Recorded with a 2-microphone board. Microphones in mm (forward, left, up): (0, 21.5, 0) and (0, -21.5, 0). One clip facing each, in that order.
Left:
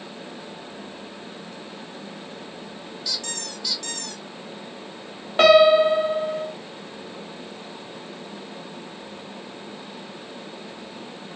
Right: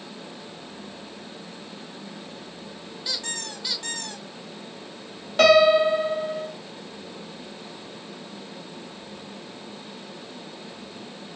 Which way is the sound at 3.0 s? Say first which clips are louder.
Right 1 dB; 25° right (ahead or behind).